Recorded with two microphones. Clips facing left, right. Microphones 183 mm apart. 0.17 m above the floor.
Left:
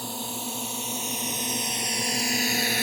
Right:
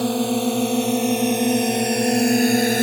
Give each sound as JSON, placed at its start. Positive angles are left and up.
{"t": 0.0, "sound": "a drone", "side_deg": -75}